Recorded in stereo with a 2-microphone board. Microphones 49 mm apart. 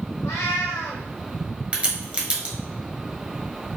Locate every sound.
0.2 s a cat meowing: 75° left (ahead or behind), 1.2 m
1.7 s a crack: 25° right (ahead or behind), 1.0 m